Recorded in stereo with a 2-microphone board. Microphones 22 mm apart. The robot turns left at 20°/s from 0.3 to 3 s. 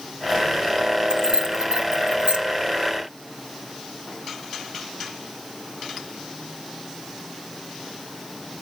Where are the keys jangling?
40° right (ahead or behind), 1.0 m; by 2.4 s 50° right (ahead or behind), 1.0 m.